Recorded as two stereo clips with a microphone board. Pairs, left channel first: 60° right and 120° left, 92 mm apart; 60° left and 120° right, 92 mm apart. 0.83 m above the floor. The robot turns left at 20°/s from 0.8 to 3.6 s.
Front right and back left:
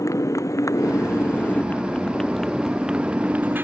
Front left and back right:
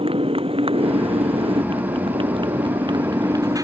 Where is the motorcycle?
115° right; by 3.6 s 170° right.